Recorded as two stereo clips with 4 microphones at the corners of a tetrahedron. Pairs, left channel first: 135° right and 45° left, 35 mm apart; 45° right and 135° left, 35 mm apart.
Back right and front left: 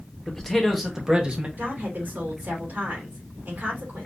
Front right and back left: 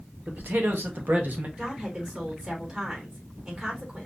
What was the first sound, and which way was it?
A man speaking, 150° left.